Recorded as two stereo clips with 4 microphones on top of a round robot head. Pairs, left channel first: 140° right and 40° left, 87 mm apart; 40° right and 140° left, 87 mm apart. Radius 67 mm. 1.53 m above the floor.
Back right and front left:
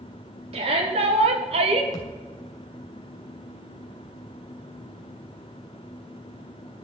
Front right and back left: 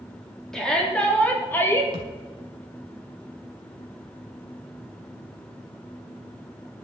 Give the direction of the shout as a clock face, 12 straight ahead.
10 o'clock.